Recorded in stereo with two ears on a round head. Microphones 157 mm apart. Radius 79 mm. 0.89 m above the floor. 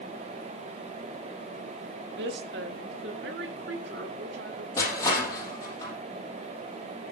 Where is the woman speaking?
65° right (ahead or behind), 1.6 m; by 4.7 s 70° right (ahead or behind), 3 m.